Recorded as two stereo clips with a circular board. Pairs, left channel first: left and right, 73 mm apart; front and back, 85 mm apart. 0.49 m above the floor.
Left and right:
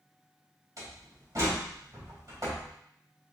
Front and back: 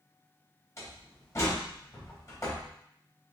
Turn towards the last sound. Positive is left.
turn(degrees=-55)